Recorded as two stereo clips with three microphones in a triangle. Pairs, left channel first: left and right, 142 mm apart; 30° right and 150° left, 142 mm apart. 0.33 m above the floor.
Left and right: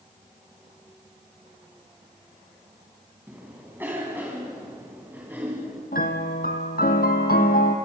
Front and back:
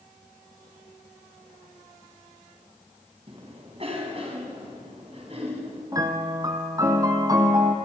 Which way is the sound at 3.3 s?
165° right.